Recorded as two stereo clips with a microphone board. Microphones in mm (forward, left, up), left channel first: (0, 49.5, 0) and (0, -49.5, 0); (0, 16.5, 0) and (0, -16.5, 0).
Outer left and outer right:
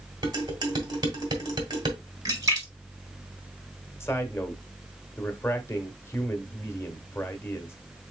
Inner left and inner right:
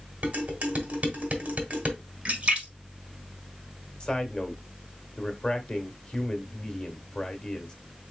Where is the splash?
35° right (ahead or behind), 1.5 m.